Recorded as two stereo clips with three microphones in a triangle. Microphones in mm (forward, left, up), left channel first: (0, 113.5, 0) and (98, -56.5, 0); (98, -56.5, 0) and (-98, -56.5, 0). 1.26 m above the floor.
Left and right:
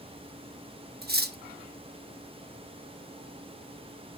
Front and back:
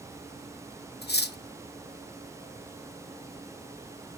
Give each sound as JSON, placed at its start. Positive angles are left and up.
{"t": 1.0, "sound": "cutlery clinking", "azimuth_deg": -30, "distance_m": 0.8}